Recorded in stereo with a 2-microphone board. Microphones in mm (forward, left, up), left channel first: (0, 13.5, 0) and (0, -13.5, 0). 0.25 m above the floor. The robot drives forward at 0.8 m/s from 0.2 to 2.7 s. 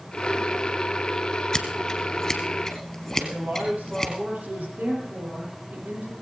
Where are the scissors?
25° left (ahead or behind), 2 m; by 4.1 s 15° left (ahead or behind), 3 m.